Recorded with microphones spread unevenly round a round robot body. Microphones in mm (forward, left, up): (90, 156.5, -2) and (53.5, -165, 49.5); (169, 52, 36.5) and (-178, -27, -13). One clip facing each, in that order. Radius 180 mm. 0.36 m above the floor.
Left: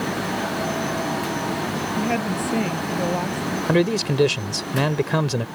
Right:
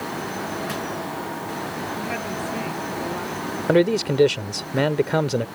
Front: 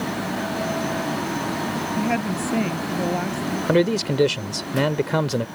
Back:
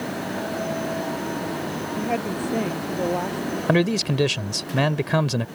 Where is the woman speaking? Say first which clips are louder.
Left 6 dB, front 2 dB; 65° left; by 3.6 s 70° left.